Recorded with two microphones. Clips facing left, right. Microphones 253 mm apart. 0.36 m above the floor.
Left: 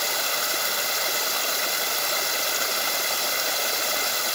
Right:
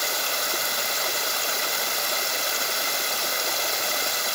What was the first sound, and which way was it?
Only background noise.